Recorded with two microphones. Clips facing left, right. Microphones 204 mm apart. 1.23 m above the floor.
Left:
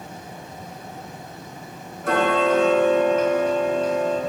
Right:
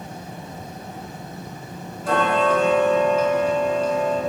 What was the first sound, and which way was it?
Ticking, 60° left (ahead or behind).